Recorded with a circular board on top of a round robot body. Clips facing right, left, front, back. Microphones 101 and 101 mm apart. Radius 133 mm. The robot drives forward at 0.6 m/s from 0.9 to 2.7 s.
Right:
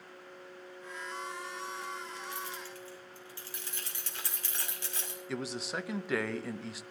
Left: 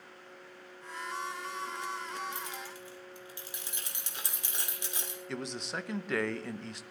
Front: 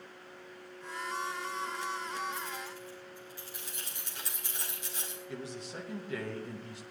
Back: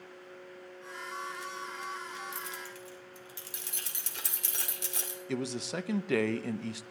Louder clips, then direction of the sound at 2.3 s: Even, front 2 dB; 160° left.